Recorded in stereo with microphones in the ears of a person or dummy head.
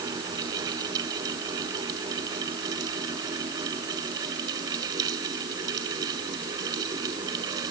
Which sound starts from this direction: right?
A fan, at 0.0 s.